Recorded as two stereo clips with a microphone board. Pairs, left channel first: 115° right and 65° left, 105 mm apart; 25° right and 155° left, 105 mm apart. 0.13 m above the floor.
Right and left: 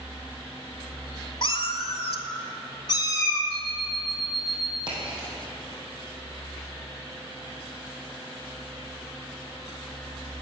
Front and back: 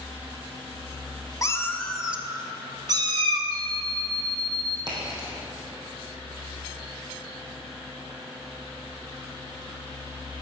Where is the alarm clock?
155° right, 2 m.